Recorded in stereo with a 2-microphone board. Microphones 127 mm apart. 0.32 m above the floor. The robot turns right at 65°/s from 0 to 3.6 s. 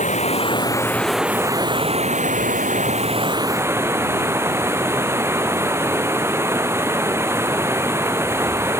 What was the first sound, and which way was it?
Running water, 105° left.